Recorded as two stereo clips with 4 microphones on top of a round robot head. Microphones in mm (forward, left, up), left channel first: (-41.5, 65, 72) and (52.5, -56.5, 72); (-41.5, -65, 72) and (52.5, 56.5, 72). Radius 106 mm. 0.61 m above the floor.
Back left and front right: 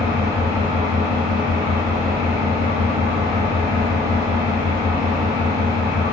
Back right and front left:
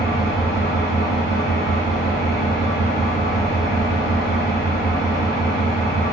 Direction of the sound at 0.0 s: 120° right.